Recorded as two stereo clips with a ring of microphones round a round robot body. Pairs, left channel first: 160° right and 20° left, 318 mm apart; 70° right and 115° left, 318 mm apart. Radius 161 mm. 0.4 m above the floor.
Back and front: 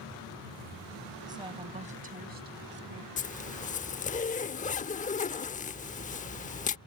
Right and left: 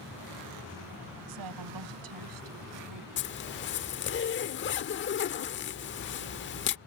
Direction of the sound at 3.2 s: 100° right.